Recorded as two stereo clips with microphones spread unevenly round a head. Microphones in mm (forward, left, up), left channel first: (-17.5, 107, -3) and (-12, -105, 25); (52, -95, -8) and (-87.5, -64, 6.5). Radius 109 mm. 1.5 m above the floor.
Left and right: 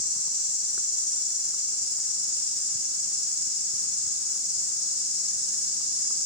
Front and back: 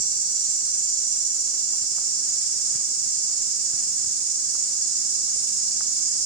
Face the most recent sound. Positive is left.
turn(degrees=-175)